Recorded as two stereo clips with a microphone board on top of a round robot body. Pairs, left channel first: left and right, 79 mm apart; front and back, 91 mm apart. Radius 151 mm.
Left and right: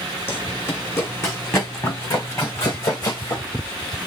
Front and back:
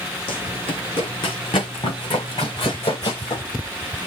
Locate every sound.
0.3 s running footsteps: 30° left, 2.5 m; by 3.4 s 45° left, 4 m